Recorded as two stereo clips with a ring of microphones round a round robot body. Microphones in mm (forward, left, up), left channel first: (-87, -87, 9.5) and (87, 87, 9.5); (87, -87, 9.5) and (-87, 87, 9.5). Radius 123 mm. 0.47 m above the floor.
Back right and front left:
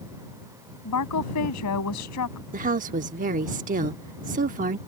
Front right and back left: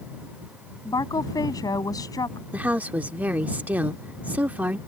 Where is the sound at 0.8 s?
120° right.